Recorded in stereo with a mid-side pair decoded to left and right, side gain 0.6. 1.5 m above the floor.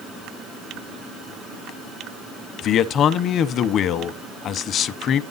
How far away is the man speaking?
About 0.9 m.